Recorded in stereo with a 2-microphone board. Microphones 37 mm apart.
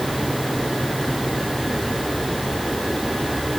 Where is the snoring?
I don't hear snoring.